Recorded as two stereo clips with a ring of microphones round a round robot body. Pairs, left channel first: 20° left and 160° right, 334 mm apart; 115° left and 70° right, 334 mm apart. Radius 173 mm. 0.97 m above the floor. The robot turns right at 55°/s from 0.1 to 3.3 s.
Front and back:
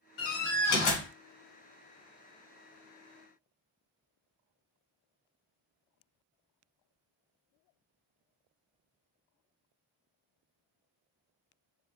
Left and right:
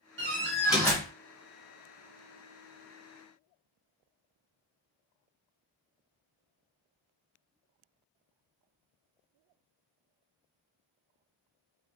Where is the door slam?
10° right, 1.3 m; by 1.1 s 40° left, 1.3 m.